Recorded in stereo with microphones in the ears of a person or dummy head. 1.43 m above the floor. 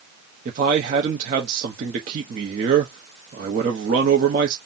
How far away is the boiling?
No boiling in this recording.